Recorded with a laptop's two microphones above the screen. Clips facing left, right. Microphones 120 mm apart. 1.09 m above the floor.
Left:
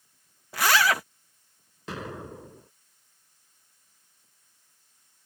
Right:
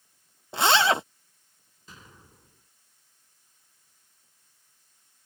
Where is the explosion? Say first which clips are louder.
Left 16 dB; 80° left.